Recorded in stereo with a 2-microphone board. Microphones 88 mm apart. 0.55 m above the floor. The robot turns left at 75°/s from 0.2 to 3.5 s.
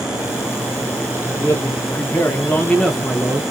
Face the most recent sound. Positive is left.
turn(degrees=-40)